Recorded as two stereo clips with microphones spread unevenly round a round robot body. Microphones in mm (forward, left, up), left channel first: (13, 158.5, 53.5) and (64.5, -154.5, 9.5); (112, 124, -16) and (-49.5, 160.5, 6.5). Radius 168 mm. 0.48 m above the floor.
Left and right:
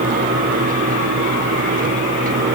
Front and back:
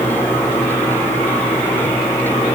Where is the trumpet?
No trumpet in this recording.